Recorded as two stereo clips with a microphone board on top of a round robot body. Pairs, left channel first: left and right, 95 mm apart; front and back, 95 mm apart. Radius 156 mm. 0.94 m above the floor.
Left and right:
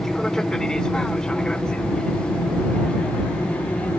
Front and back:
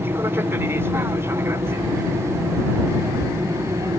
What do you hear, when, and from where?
0.0 s an aircraft: 170° left; by 4.0 s 160° left